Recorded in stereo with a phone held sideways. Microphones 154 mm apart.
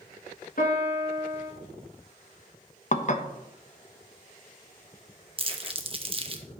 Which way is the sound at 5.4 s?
35° right (ahead or behind).